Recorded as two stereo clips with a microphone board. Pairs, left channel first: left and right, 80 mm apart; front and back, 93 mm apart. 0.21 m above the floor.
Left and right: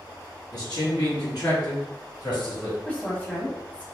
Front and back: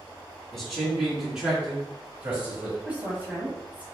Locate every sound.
0.5 s a man speaking: 90° left, 2.0 m; by 2.8 s 110° left, 3 m
2.9 s a woman speaking: 130° left, 1.3 m